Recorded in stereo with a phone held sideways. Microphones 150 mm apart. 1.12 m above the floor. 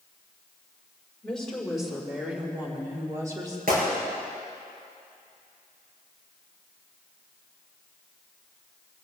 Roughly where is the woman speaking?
Centre.